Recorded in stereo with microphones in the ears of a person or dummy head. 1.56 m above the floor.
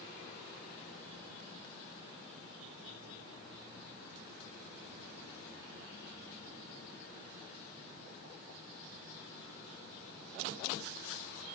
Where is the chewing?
No chewing in this recording.